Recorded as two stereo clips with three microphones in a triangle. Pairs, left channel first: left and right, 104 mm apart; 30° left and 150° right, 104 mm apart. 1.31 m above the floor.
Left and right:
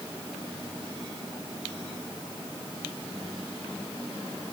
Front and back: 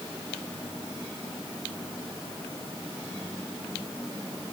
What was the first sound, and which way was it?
Only background noise.